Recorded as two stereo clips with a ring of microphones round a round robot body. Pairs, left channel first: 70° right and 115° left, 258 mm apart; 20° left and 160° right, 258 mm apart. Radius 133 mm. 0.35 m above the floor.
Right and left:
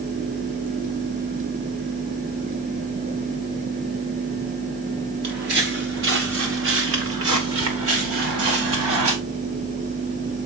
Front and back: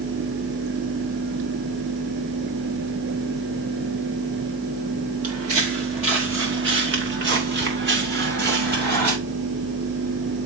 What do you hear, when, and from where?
5.2 s footsteps: 165° left, 3 m; by 9.1 s 150° left, 5 m